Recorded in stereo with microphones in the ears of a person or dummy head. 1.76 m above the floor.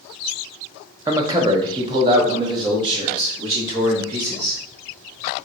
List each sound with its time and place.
1.1 s a man speaking: 15° right (ahead or behind), 0.6 m; by 4.6 s 25° right (ahead or behind), 3 m